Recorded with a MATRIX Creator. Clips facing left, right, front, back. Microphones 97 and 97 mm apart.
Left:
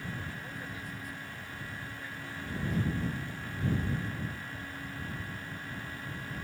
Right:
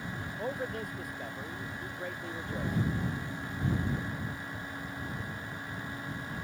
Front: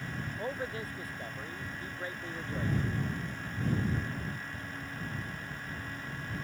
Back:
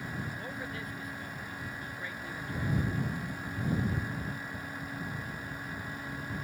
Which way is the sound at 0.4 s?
55° right.